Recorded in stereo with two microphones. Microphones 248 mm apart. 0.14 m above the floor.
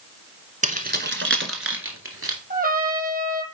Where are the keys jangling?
30° right (ahead or behind), 1.0 m; by 2.4 s 60° right (ahead or behind), 1.7 m.